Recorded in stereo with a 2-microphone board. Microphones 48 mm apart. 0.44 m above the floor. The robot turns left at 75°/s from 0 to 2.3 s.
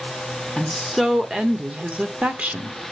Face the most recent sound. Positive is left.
turn(degrees=-105)